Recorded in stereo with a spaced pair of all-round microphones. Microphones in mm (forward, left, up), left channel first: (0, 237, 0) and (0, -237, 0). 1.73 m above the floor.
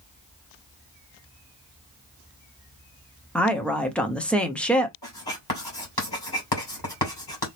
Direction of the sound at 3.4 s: Centre (ahead or behind).